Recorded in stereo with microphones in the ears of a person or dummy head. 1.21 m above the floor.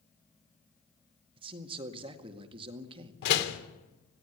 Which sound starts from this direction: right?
A man speaking, at 1.4 s.